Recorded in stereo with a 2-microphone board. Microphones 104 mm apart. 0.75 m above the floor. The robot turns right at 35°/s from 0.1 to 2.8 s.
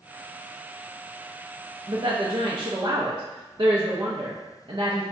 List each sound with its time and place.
1.9 s a woman speaking: 115° right, 0.5 m; by 5.0 s 80° right, 0.5 m